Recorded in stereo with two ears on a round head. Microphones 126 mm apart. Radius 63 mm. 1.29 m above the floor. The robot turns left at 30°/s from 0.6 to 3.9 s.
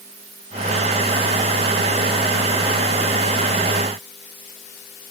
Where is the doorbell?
I don't hear a doorbell.